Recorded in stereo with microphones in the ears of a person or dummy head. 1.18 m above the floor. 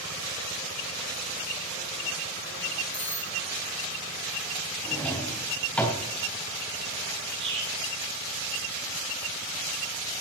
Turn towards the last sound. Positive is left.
turn(degrees=-30)  # may be behind; listen again after turning